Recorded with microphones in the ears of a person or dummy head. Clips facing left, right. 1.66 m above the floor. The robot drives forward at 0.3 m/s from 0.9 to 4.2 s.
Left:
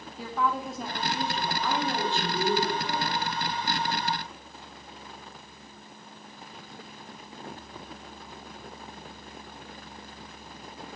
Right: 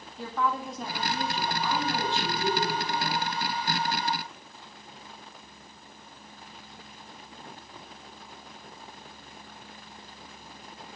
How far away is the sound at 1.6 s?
About 3.5 m.